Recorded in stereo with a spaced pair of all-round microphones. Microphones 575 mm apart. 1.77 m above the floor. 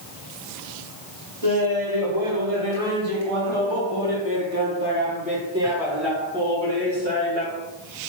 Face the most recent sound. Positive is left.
turn(degrees=15)  # may be behind; listen again after turning